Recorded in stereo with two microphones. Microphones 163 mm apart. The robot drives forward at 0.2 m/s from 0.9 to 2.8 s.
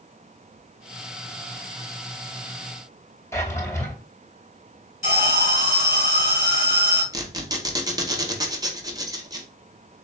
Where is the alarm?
65° right (ahead or behind), 3 m.